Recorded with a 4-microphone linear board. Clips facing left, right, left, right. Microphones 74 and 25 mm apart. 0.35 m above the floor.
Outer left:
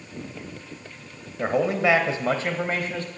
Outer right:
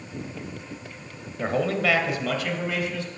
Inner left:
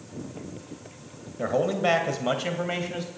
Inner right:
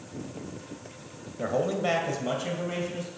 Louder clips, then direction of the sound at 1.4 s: Outer left 2 dB, inner left 3 dB; 10° left (ahead or behind).